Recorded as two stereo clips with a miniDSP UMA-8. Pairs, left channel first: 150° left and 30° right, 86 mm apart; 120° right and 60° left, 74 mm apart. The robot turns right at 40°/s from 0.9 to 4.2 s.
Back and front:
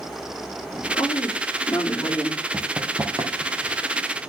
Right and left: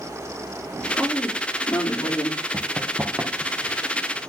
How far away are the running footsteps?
About 1.5 m.